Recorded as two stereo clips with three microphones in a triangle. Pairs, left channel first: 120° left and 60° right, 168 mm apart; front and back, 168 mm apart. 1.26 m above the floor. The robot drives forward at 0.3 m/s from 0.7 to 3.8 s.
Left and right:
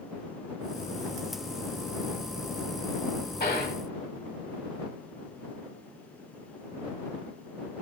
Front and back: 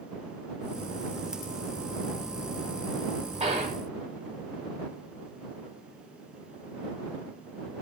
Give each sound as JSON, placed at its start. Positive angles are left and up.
{"t": 3.4, "sound": "a gunshot", "azimuth_deg": 130, "distance_m": 2.0}